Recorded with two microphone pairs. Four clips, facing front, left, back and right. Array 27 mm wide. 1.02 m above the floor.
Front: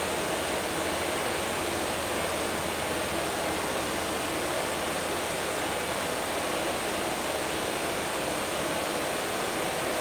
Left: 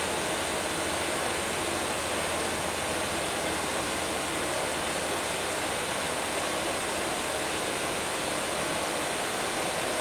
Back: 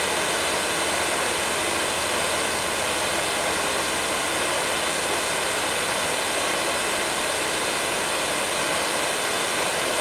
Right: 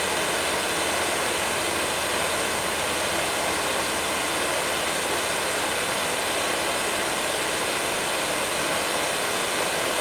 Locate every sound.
0.0 s running water: 150° right, 3.5 m